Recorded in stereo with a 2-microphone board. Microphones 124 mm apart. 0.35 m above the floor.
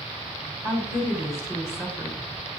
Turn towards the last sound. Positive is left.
turn(degrees=-25)  # may be behind; listen again after turning